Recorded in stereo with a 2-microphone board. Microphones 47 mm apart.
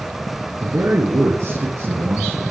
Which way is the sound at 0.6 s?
65° right (ahead or behind).